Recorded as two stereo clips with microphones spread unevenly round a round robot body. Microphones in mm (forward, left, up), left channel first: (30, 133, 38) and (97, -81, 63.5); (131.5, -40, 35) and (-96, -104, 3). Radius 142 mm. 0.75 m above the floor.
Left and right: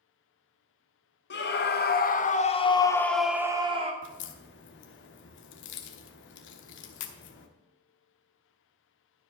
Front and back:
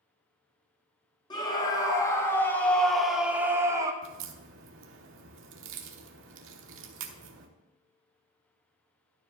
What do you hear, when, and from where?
1.3 s a scream: 95° left, 1.7 m; by 3.9 s 115° right, 1.1 m
4.0 s a crack: 150° left, 0.9 m